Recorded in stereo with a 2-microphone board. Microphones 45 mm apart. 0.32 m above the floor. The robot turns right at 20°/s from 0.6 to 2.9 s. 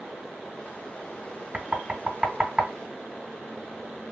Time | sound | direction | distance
1.5 | knocking | 30° right (ahead or behind) | 1.5 m